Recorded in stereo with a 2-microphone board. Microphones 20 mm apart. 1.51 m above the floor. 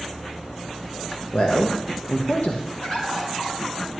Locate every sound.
1.3 s a man speaking: 75° left (ahead or behind), 1.1 m
2.8 s a bird: 45° left (ahead or behind), 4 m